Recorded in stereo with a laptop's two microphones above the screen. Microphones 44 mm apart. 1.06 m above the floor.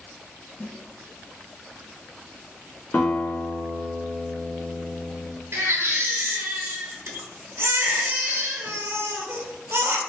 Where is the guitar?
40° left (ahead or behind), 0.7 m.